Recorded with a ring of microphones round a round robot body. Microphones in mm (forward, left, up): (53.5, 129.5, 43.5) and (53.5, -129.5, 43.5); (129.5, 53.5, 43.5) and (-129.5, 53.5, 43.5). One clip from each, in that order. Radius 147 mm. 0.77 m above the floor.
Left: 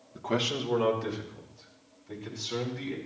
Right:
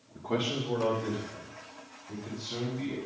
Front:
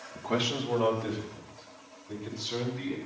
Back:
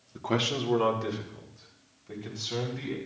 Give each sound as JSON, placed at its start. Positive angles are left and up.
{"t": 0.1, "sound": "a man speaking", "azimuth_deg": 130, "distance_m": 1.4}